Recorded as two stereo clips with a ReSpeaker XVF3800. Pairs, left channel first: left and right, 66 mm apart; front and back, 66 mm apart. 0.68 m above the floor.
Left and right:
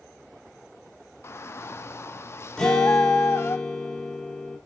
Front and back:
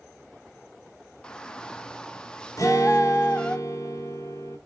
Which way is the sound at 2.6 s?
15° left.